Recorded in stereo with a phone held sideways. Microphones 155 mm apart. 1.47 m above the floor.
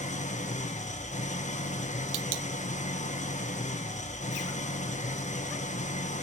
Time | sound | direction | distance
0.0 | an engine running | 50° left (ahead or behind) | 0.8 m